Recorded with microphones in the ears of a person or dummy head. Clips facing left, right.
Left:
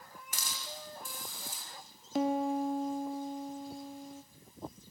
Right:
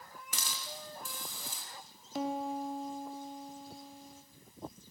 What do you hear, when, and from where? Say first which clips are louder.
0.3 s a hiss: even; 65° right (ahead or behind), 3.5 m
2.1 s a piano: left 5 dB; 55° left (ahead or behind), 1.0 m